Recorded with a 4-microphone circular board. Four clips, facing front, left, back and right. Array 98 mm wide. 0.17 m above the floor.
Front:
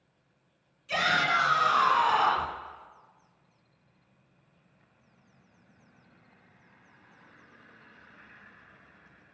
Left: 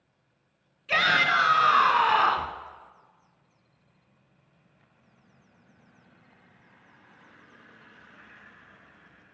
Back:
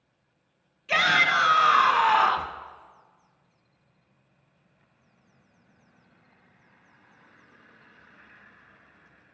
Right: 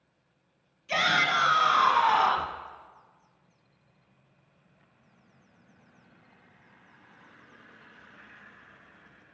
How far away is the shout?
About 1.4 m.